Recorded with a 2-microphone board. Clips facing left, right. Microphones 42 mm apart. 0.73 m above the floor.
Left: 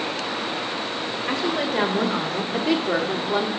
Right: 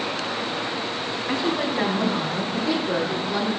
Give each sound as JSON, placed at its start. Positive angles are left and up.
{"t": 1.3, "sound": "a woman speaking", "side_deg": 65, "distance_m": 2.5}